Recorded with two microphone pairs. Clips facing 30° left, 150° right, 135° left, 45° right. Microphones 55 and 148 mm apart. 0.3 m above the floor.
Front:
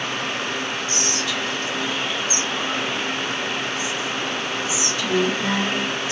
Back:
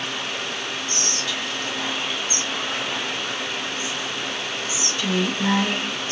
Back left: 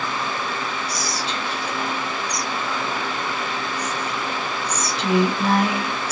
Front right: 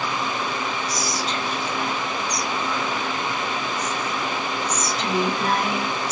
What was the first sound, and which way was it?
Whispering, 175° left.